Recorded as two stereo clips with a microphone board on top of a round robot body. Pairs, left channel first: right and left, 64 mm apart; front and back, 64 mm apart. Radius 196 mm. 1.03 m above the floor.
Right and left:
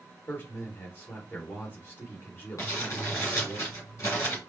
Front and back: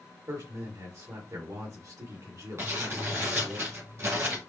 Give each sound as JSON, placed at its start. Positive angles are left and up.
{"t": 0.3, "sound": "a man speaking", "azimuth_deg": -150, "distance_m": 2.0}
{"t": 2.6, "sound": "crumpling", "azimuth_deg": -135, "distance_m": 2.0}